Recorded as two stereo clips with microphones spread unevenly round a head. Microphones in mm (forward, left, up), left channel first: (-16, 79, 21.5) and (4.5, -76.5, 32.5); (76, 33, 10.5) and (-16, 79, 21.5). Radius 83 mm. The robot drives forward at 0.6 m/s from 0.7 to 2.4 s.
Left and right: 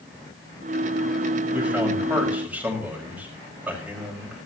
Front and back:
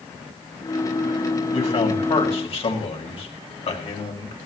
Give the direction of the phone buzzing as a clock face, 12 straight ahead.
No phone buzzing in this recording.